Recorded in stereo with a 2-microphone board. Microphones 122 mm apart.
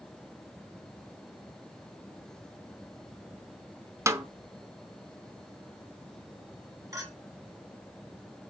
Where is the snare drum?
25° right (ahead or behind), 0.6 m.